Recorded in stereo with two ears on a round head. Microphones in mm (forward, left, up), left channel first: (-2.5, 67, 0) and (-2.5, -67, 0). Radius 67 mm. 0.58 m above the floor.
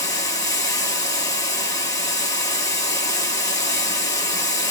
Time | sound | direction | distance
0.0 | running water | 20° left (ahead or behind) | 0.9 m